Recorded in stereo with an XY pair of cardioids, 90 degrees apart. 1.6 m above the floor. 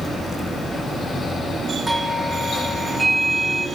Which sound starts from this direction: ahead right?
A doorbell, at 1.9 s.